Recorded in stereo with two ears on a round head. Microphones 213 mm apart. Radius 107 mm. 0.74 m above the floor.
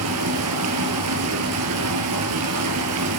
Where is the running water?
75° right (ahead or behind), 3 m.